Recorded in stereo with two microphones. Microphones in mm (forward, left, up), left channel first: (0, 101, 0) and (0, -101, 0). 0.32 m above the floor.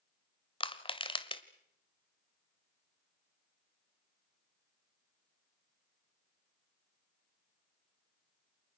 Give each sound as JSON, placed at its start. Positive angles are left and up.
{"t": 0.6, "sound": "crushing", "side_deg": 25, "distance_m": 1.5}